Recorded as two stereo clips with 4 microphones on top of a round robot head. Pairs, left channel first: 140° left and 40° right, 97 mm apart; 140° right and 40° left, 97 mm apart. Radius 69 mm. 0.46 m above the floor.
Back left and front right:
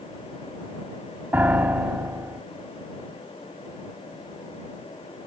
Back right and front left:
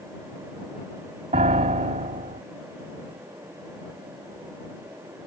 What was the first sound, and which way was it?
A piano, 35° left.